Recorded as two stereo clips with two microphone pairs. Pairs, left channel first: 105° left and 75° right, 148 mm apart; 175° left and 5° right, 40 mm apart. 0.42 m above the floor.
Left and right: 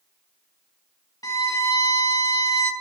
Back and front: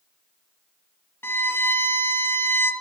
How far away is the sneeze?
No sneeze in this recording.